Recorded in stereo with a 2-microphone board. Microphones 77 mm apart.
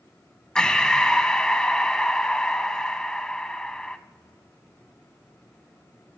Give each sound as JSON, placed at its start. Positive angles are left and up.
{"t": 0.6, "sound": "breathing", "side_deg": 10, "distance_m": 0.6}